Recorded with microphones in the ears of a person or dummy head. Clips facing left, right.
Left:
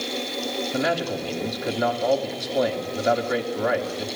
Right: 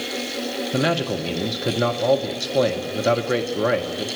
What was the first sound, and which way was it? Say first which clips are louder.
A man speaking: right 3 dB; 45° right (ahead or behind).